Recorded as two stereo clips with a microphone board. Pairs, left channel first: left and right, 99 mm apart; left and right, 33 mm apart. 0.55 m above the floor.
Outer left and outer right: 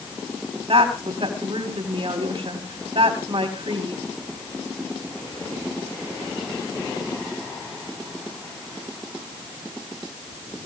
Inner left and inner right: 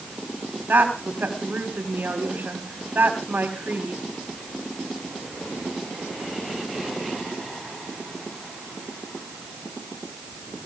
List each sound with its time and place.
0.7 s a woman speaking: 70° right (ahead or behind), 3 m